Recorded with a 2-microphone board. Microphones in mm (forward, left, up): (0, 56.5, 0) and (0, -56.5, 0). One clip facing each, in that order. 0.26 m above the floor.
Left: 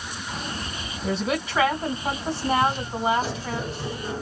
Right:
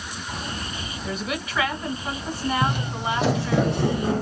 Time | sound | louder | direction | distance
1.0 | a woman speaking | left 5 dB | 30° left (ahead or behind) | 1.6 m
2.6 | footsteps | left 2 dB | 65° right (ahead or behind) | 0.7 m